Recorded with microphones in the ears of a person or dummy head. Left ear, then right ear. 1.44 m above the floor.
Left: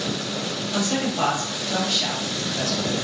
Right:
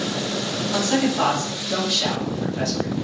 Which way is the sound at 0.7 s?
10° left (ahead or behind).